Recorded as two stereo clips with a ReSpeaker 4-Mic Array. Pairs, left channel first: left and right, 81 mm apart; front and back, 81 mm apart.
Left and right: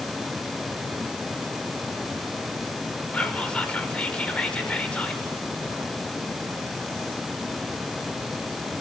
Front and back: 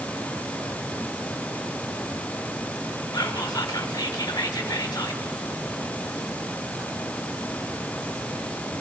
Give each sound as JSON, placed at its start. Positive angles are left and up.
{"t": 3.1, "sound": "whispering", "azimuth_deg": 15, "distance_m": 1.2}